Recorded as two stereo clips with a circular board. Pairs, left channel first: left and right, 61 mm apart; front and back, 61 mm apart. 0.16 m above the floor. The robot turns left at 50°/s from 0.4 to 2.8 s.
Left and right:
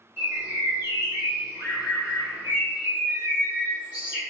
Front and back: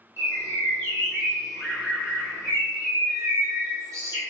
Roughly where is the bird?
Ahead right.